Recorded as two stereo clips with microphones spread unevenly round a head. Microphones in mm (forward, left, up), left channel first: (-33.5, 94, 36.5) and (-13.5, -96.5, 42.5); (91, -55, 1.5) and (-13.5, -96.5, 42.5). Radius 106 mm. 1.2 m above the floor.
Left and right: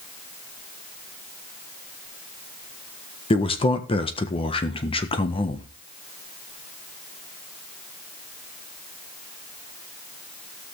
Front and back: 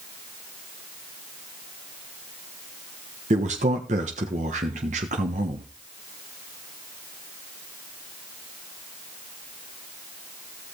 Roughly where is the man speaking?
Behind left.